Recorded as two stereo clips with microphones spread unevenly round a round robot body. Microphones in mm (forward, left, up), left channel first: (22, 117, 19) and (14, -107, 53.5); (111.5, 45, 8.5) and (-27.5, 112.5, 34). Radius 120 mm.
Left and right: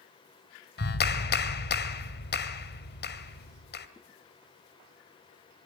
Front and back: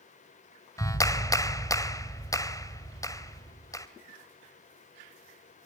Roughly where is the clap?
Ahead left.